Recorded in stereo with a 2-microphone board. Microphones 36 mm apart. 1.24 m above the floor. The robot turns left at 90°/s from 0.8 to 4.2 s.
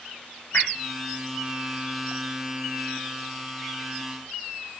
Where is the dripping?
65° left (ahead or behind), 0.7 m.